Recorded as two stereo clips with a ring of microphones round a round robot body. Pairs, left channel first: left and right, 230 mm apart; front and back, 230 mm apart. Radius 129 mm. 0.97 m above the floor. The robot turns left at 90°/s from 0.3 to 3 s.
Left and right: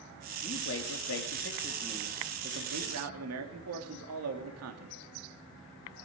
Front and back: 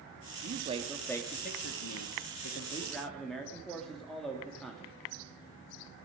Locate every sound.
0.4 s a man speaking: 145° left, 2 m; by 4.9 s 90° right, 2 m